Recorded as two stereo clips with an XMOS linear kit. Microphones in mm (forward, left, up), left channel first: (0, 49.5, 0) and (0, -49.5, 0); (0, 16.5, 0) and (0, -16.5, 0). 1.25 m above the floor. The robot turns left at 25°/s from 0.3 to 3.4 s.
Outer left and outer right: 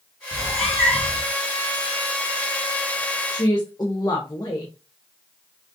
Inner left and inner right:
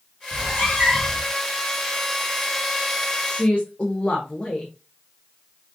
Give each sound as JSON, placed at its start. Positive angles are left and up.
{"t": 0.3, "sound": "a cat meowing", "side_deg": 65, "distance_m": 3.5}
{"t": 3.3, "sound": "a woman speaking", "side_deg": 45, "distance_m": 1.1}